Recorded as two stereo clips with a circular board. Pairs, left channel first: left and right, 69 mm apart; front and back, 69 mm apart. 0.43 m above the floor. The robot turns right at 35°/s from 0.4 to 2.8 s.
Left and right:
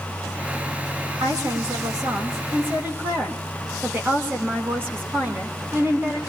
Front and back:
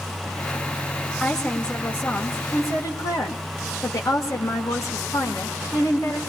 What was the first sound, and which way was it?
A woman speaking, 90° right.